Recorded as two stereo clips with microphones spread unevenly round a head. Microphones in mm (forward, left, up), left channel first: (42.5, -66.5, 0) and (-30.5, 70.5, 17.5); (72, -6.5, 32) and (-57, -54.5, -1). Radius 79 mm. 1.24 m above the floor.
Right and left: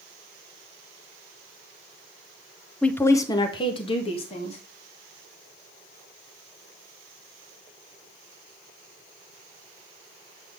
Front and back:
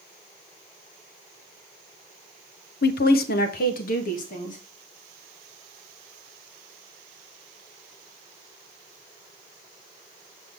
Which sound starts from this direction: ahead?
A woman speaking, at 2.8 s.